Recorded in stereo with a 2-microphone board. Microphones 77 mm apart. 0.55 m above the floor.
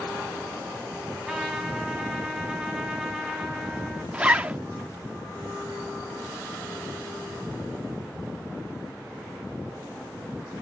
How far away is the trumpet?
About 4 m.